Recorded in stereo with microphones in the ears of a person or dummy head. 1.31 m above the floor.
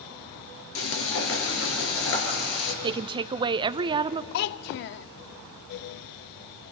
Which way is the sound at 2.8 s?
30° right (ahead or behind).